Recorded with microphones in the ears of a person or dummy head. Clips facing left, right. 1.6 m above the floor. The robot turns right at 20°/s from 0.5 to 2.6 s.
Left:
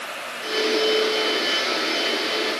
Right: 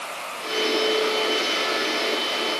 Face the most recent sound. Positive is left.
No sound to turn to.